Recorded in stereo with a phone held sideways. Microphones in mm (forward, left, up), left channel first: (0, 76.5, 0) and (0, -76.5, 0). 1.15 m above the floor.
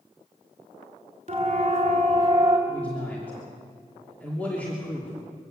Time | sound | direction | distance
1.3 | a siren | 45° right (ahead or behind) | 3.5 m
2.7 | a man speaking | 10° left (ahead or behind) | 3 m